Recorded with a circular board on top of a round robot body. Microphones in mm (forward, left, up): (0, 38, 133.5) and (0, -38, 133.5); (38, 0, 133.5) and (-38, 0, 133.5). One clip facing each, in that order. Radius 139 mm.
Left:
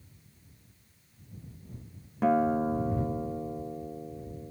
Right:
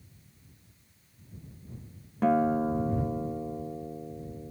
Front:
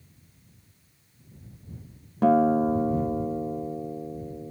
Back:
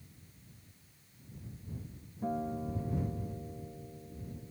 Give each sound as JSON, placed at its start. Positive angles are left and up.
{"t": 2.2, "sound": "a guitar", "azimuth_deg": 5}